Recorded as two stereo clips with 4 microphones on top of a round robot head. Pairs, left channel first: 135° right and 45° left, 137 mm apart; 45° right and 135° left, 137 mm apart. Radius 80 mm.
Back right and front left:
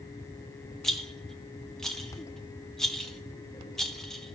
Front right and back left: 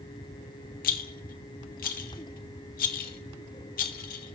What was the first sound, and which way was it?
A rattle, 50° right.